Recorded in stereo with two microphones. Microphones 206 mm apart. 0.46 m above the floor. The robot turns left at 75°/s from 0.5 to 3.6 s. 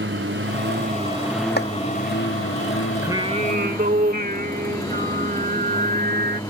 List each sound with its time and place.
0.0 s a lawn mower: 110° right; by 6.5 s 15° left
1.6 s chopping: 50° left (ahead or behind); by 1.7 s 60° left (ahead or behind)
3.0 s singing: 15° right; by 6.4 s 60° right